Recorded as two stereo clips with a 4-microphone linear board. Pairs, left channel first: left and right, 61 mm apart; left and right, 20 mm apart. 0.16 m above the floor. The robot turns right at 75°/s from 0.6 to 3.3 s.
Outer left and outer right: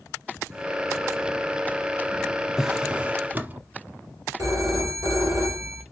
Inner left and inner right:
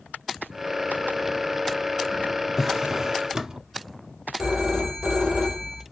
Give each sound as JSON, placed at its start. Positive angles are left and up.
{"t": 2.6, "sound": "a drawer", "azimuth_deg": -170, "distance_m": 0.6}
{"t": 4.4, "sound": "a phone ringing", "side_deg": -60, "distance_m": 3.0}